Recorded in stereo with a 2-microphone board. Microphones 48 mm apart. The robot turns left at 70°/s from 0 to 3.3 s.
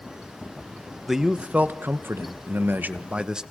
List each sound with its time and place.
1.1 s a man speaking: 5° right, 1.0 m; by 3.4 s 160° right, 1.0 m